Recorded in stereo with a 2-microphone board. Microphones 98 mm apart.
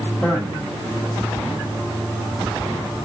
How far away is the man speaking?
About 5.5 m.